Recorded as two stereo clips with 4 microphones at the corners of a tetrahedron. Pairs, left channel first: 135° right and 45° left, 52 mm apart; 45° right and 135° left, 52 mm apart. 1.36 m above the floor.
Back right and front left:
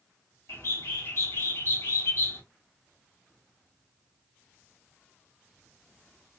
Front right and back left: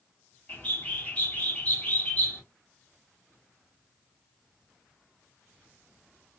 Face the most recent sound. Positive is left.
turn(degrees=-105)